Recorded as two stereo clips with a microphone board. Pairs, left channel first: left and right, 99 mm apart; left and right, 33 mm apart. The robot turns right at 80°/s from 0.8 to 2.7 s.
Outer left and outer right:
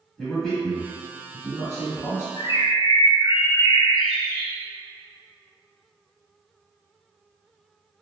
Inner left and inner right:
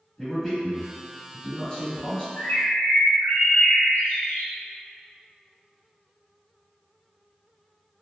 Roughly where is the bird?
Left.